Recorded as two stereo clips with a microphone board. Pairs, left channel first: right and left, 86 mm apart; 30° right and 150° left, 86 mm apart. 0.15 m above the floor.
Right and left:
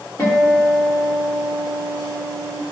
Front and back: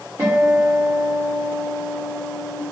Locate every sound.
0.2 s a guitar: 145° right, 4.5 m